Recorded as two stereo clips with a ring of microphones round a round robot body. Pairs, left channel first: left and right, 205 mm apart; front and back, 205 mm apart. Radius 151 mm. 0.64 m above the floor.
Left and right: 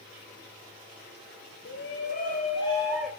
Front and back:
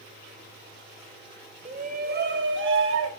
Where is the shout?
125° left, 2.5 m; by 3.1 s straight behind, 2.5 m.